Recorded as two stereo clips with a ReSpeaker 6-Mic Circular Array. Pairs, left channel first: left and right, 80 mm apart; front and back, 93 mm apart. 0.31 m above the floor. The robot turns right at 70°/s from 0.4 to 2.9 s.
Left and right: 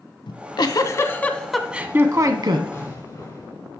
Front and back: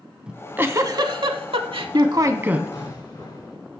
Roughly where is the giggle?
Left.